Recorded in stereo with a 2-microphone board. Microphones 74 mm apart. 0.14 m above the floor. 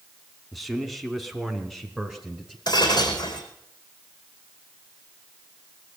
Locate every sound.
0.5 s a man speaking: centre (ahead or behind), 1.6 m
2.7 s breaking glass: 70° left (ahead or behind), 3.5 m